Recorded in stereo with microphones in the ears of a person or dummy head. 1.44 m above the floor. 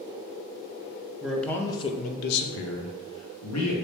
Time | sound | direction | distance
1.2 | a man speaking | 5° right (ahead or behind) | 0.6 m